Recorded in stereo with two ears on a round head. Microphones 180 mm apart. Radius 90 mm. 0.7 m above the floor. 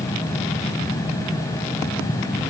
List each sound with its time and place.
Only background noise.